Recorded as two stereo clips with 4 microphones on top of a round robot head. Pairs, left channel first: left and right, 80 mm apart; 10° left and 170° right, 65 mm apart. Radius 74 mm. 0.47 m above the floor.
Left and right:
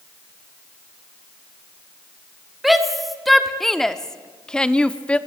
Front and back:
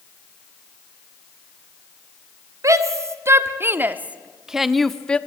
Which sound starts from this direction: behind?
A shout, at 2.6 s.